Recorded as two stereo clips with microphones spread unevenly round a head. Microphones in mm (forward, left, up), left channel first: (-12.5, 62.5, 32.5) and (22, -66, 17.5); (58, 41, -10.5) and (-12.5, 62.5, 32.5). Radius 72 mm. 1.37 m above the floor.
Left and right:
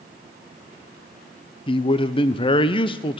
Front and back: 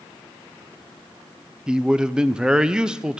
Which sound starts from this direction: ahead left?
A man speaking, at 1.7 s.